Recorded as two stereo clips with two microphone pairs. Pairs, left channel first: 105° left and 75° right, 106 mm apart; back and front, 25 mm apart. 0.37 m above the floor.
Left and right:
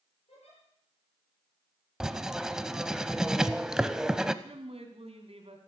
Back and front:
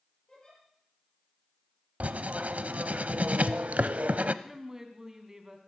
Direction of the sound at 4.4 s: 65° right.